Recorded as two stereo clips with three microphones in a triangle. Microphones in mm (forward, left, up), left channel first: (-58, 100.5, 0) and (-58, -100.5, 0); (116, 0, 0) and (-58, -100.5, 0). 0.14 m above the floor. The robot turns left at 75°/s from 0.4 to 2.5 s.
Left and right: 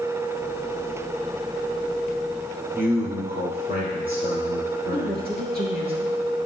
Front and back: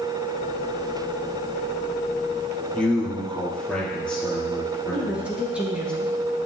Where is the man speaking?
55° right, 3.5 m.